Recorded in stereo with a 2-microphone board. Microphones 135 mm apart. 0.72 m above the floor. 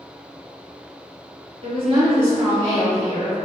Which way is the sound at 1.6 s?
45° right (ahead or behind).